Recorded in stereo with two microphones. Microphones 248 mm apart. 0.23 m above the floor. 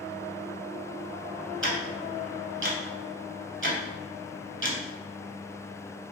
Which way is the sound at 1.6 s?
50° right (ahead or behind).